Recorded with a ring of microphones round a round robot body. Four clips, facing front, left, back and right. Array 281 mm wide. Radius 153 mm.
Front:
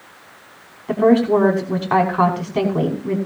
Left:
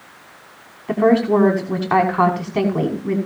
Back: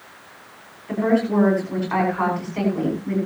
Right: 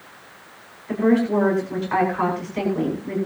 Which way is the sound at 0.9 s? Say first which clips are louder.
Left 4 dB, front 6 dB; 55° left.